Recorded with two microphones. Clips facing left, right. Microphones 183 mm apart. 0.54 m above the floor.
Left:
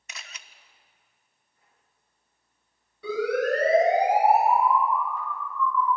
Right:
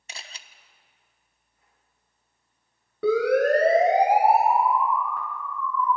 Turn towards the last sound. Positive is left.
turn(degrees=-65)  # may be behind; listen again after turning